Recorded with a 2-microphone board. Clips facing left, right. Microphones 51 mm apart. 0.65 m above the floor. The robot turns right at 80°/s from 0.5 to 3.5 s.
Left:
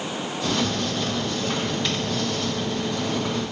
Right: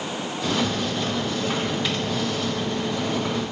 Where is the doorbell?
No doorbell in this recording.